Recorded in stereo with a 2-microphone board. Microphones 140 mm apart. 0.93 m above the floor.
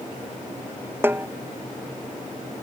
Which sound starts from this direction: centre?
A snare drum, at 1.0 s.